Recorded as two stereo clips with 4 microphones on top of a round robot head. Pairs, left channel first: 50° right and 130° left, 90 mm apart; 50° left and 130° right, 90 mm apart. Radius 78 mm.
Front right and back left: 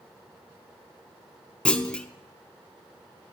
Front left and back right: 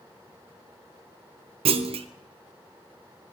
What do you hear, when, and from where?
1.6 s a clunk: 130° right, 0.6 m